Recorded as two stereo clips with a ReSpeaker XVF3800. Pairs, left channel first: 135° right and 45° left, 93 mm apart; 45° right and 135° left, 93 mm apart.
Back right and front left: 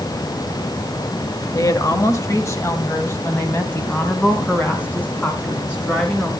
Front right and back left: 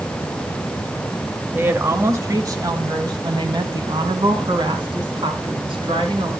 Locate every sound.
1.6 s a woman speaking: 165° right, 1.2 m; by 6.3 s 155° left, 3.5 m